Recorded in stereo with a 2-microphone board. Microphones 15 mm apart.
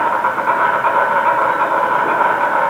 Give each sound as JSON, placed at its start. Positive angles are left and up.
{"t": 0.0, "sound": "an insect", "side_deg": -35, "distance_m": 2.0}